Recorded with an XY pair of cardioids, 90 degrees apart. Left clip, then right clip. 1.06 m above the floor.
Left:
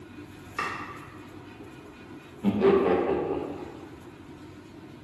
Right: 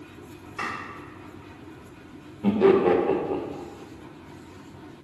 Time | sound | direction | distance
0.6 | chopping | 60° left | 1.4 m
2.4 | laughter | 20° right | 0.7 m